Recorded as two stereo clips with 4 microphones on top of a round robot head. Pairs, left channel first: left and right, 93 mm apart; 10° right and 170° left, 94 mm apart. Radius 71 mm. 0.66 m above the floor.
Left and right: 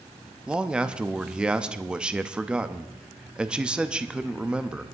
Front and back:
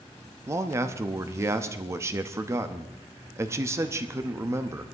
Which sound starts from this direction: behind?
A man speaking, at 0.5 s.